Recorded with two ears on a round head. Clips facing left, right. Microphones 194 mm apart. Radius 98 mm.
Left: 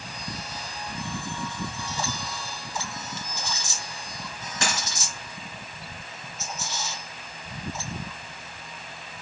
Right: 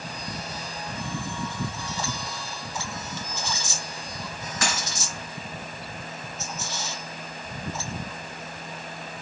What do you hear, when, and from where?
4.6 s a dropped coin: 25° left (ahead or behind), 2.5 m